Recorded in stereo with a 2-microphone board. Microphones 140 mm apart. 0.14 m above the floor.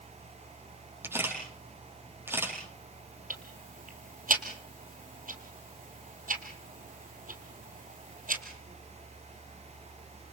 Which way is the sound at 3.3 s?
75° right (ahead or behind).